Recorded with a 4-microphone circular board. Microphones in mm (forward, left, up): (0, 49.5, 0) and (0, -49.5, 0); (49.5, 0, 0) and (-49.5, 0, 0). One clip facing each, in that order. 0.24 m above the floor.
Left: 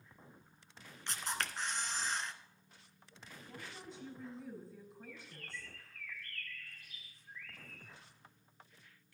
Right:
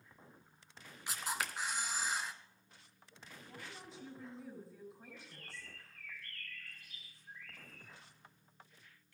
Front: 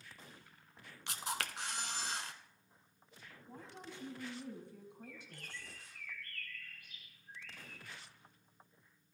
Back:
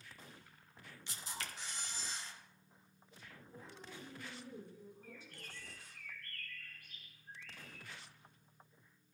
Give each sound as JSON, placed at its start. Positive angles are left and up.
{"t": 1.1, "sound": "a camera shutter", "azimuth_deg": -10, "distance_m": 0.9}
{"t": 3.5, "sound": "a woman speaking", "azimuth_deg": 0, "distance_m": 4.5}
{"t": 5.0, "sound": "a bird", "azimuth_deg": -140, "distance_m": 2.5}